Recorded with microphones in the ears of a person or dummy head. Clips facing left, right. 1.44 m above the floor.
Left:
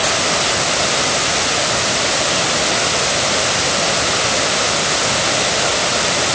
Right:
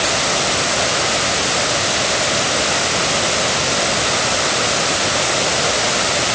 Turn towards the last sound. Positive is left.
No sound to turn to.